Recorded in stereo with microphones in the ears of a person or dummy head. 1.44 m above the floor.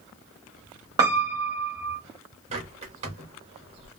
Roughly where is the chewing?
No chewing in this recording.